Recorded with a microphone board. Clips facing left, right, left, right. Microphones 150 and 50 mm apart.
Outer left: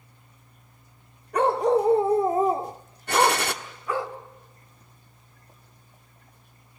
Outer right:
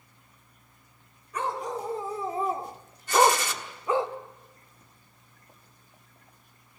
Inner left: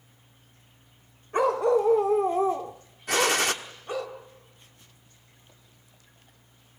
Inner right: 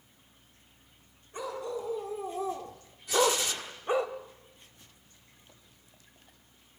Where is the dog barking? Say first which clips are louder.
Outer left 11 dB, inner left 14 dB; 65° left (ahead or behind), 1.1 m; by 4.1 s 25° right (ahead or behind), 1.4 m.